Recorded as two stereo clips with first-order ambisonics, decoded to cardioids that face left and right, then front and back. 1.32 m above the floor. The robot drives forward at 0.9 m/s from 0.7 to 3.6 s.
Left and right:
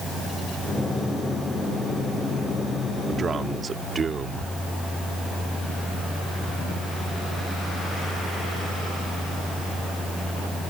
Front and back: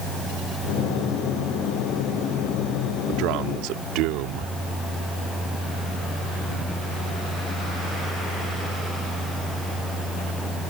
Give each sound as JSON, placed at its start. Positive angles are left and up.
{"t": 3.1, "sound": "a man speaking", "azimuth_deg": -155}